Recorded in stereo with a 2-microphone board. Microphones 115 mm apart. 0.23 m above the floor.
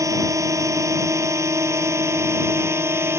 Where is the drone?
30° right (ahead or behind); by 3.2 s 20° right (ahead or behind).